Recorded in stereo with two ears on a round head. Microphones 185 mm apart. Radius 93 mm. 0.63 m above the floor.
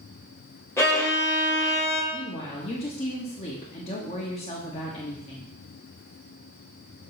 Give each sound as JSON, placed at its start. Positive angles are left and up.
{"t": 0.8, "sound": "a violin", "side_deg": 15, "distance_m": 1.7}
{"t": 2.1, "sound": "a woman speaking", "side_deg": 30, "distance_m": 1.2}